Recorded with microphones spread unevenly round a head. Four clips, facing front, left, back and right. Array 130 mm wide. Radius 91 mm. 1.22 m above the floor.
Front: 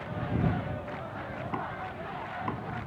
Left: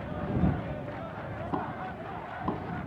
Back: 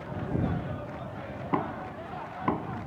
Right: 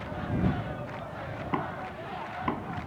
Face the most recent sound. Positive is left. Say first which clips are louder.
# right 1 dB, back 7 dB
turn(degrees=165)